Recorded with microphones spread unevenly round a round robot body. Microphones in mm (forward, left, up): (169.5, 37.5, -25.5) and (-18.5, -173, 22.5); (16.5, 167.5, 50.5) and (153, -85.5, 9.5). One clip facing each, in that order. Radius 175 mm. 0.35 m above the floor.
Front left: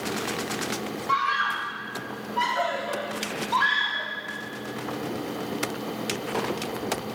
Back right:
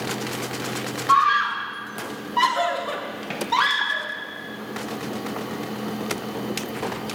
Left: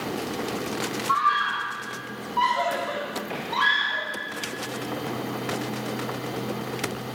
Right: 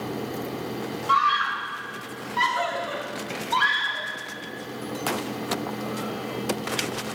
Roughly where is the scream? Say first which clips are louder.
Back right 5 dB, right 1 dB; ahead right.